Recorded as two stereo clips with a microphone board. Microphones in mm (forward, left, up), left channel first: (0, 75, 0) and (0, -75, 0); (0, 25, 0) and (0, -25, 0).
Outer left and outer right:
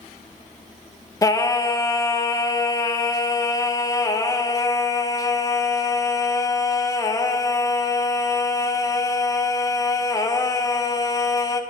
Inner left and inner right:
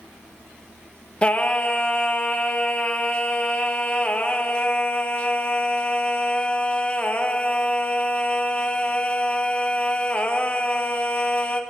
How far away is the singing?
About 0.6 m.